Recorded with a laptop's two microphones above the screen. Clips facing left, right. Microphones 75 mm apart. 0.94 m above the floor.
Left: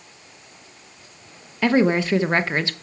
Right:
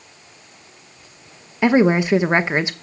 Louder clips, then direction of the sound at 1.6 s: Right 3 dB; 20° right (ahead or behind).